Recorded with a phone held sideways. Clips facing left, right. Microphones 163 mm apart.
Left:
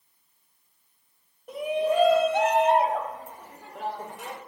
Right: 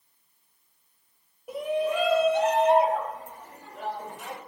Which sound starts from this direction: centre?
A shout, at 1.5 s.